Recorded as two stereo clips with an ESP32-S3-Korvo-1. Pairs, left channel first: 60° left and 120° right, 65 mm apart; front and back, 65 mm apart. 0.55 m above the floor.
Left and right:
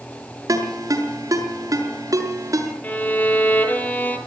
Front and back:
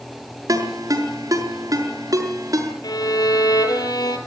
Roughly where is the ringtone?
Behind right.